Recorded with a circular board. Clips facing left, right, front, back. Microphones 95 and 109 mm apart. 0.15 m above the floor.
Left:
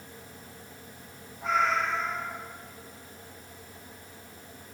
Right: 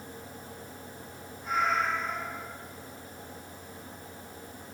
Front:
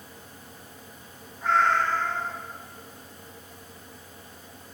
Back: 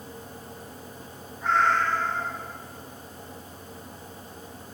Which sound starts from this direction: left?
A cat meowing, at 1.4 s.